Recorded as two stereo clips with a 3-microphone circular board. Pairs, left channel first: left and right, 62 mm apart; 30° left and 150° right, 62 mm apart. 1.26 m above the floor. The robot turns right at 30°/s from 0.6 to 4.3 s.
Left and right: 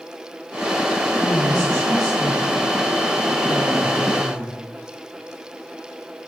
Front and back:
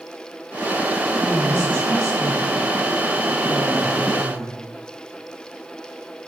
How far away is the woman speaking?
About 1.3 m.